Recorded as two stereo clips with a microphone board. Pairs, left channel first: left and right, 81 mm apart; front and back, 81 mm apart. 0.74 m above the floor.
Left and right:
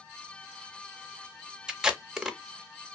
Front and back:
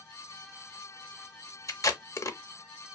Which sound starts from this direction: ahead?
Tape being pulled, at 1.7 s.